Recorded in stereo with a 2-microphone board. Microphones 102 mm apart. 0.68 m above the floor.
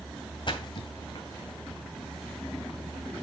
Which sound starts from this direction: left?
A splash, at 0.5 s.